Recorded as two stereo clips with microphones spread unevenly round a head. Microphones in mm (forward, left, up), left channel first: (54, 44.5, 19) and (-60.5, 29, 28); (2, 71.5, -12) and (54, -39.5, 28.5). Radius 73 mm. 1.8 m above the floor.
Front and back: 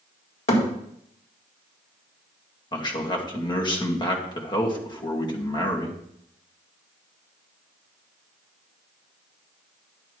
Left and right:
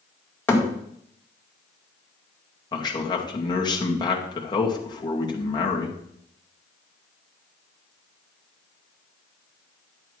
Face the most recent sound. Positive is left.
turn(degrees=60)